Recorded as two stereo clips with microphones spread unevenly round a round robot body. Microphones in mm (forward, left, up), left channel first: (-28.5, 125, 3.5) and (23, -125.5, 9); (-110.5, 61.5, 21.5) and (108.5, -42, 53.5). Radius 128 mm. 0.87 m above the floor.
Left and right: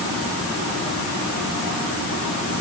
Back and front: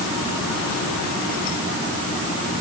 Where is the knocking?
No knocking in this recording.